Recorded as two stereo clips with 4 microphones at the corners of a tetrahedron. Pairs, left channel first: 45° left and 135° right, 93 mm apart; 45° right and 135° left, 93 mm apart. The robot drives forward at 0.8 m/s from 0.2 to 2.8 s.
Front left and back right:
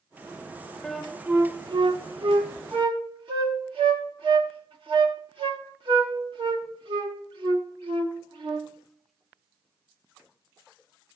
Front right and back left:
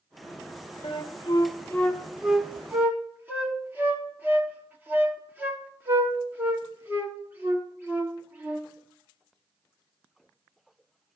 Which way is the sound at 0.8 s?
40° right.